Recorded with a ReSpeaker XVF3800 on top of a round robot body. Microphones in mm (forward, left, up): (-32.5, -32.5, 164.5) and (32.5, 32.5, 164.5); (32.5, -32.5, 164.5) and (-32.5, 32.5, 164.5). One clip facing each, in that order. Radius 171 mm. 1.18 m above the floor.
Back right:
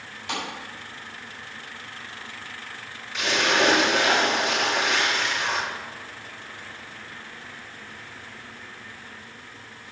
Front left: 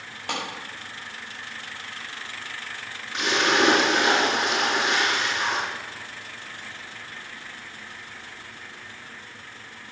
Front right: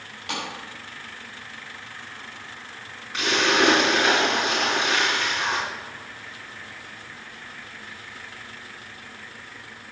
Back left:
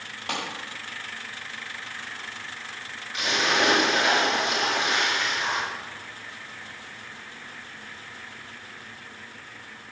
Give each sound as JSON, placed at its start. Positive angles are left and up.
{"t": 0.3, "sound": "a clap", "azimuth_deg": 80, "distance_m": 5.5}
{"t": 3.1, "sound": "a splash", "azimuth_deg": 5, "distance_m": 5.0}